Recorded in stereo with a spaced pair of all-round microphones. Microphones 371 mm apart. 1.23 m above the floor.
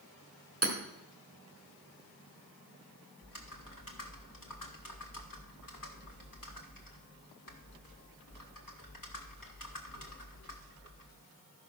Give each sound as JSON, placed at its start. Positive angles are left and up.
{"t": 0.6, "sound": "hammering", "side_deg": -40, "distance_m": 1.8}
{"t": 3.2, "sound": "typing on a keyboard", "side_deg": 60, "distance_m": 1.5}